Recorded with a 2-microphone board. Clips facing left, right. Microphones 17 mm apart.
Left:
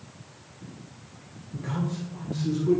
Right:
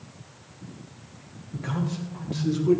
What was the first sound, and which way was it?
A man speaking, 30° right (ahead or behind).